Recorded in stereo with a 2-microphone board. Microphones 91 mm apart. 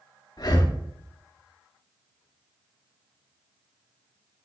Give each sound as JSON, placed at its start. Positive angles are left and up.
{"t": 0.4, "sound": "breathing", "side_deg": 45, "distance_m": 0.6}